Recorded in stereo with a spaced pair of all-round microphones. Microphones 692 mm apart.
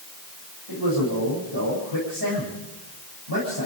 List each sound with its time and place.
0.7 s a man speaking: 35° right (ahead or behind), 8.5 m